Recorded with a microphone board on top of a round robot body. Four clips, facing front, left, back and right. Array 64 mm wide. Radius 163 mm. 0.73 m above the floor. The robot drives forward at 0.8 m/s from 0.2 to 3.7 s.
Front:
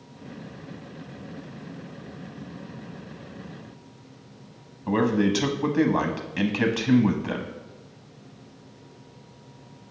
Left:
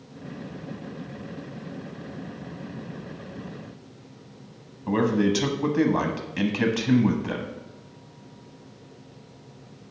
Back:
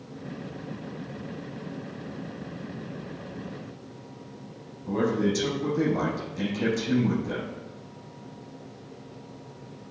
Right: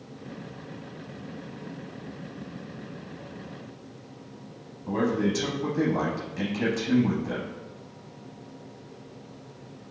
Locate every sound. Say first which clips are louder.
4.9 s a man speaking: left 3 dB, front 3 dB; 35° left, 0.8 m